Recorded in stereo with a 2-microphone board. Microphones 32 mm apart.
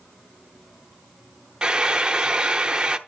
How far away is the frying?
About 0.9 m.